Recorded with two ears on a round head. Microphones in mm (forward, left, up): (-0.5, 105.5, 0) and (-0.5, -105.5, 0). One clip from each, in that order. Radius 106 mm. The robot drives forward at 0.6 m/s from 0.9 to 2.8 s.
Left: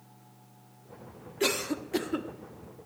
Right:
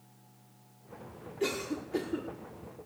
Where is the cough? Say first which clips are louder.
Left 4 dB; 40° left (ahead or behind), 1.0 m.